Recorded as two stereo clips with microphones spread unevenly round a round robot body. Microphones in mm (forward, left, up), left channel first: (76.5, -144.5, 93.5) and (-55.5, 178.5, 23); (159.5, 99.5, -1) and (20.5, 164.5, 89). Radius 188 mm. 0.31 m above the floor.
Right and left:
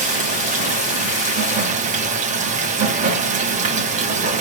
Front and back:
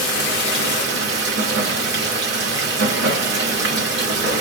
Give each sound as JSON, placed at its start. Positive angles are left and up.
{"t": 0.0, "sound": "running water", "azimuth_deg": 170, "distance_m": 1.2}